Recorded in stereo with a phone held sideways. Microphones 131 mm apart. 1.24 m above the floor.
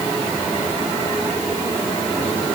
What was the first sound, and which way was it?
Only background noise.